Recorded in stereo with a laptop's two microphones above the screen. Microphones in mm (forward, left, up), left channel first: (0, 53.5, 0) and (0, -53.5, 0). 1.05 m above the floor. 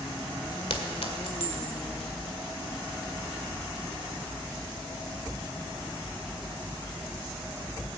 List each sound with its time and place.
0.7 s a clink: 75° left (ahead or behind), 1.9 m